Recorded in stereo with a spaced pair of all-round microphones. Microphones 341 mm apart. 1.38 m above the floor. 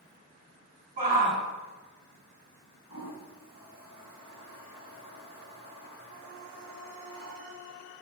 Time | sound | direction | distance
1.0 | a shout | 25° right (ahead or behind) | 2.5 m
2.9 | a toilet flushing | 50° left (ahead or behind) | 2.0 m